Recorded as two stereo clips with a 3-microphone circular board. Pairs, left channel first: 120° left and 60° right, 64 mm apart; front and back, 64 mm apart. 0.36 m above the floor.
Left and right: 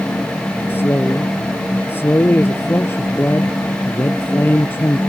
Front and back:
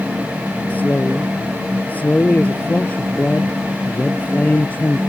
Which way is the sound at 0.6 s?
65° left.